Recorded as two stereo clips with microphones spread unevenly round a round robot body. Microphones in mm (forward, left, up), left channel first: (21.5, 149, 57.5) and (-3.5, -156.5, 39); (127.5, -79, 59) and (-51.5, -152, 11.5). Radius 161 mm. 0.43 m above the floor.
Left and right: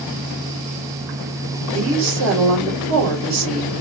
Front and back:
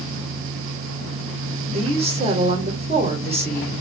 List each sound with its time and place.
1.7 s a woman speaking: 120° right, 2 m